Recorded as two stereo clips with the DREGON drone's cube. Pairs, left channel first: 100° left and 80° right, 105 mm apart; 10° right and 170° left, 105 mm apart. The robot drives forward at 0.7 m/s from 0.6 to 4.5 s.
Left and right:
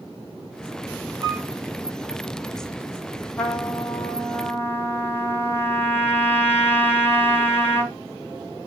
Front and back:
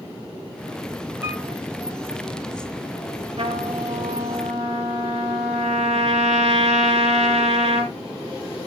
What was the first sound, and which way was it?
A piano, 120° right.